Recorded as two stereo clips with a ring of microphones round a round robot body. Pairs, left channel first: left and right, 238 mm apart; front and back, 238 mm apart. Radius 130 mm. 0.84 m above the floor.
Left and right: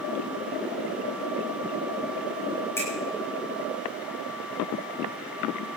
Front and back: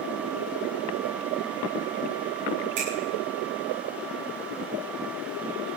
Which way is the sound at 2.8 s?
170° left.